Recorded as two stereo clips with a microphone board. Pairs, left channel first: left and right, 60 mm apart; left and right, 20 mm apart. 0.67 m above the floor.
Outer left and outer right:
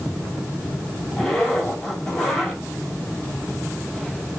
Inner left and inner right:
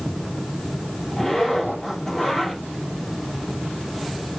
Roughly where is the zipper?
Centre.